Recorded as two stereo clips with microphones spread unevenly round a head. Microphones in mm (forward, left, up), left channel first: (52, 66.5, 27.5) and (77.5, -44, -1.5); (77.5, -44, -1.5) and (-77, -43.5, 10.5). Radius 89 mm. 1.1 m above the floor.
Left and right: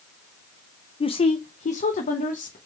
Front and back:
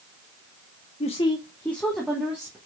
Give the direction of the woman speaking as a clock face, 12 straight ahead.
10 o'clock.